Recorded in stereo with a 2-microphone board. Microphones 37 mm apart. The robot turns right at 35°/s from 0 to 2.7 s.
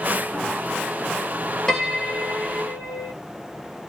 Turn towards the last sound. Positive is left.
turn(degrees=45)